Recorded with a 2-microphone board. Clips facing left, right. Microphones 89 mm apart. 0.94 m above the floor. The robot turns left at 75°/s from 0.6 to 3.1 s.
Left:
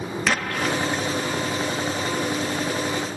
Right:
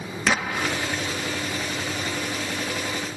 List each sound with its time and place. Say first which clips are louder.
0.3 s an explosion: even; 175° right; by 1.4 s 125° left